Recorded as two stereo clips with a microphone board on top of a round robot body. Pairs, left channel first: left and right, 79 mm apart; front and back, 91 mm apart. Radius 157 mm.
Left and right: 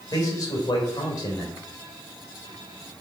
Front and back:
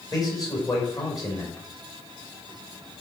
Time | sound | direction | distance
0.1 | a man speaking | 45° left | 3.5 m